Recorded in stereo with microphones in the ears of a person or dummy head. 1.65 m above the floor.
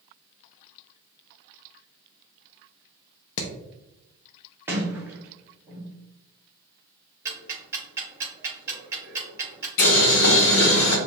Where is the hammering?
75° left (ahead or behind), 0.8 m.